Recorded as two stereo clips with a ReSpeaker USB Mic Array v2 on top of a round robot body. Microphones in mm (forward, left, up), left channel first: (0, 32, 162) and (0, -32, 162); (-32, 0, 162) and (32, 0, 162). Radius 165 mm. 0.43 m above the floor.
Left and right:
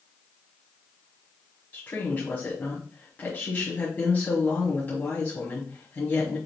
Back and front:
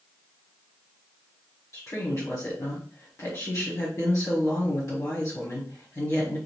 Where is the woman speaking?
145° left, 1.8 m.